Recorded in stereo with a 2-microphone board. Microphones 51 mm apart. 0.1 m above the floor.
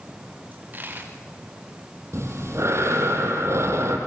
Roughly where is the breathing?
Right.